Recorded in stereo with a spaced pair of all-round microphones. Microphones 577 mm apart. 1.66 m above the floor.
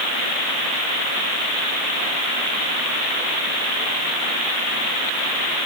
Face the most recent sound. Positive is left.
No sound to turn to.